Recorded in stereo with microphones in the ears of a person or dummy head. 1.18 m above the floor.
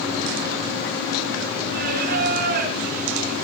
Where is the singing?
50° right (ahead or behind), 3.5 m.